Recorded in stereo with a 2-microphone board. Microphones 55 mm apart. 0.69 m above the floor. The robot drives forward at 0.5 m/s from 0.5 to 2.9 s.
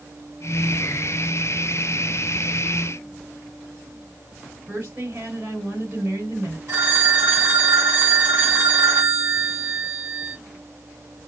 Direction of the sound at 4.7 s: 35° right (ahead or behind).